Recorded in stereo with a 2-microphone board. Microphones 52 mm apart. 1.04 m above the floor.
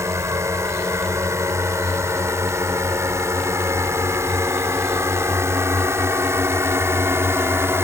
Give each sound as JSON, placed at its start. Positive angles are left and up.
{"t": 0.0, "sound": "a drone", "side_deg": -75}